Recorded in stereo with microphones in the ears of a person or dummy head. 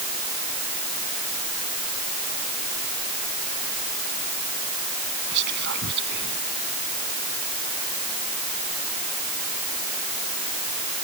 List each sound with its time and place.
5.3 s whispering: 60° right (ahead or behind)